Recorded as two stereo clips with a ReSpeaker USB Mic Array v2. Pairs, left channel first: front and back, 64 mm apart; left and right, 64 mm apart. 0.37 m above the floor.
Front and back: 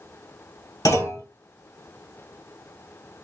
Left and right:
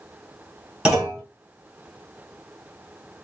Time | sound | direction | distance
0.8 | a clunk | 10° right | 2 m